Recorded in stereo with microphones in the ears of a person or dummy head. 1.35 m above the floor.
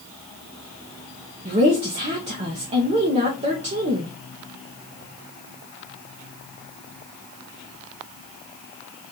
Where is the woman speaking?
30° right (ahead or behind), 0.6 m.